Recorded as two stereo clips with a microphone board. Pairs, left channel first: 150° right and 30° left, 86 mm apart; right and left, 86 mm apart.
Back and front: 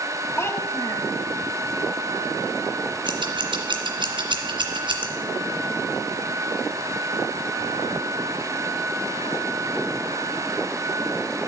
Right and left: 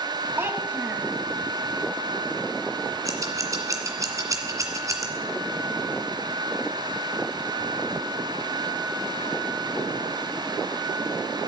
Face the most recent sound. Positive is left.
turn(degrees=40)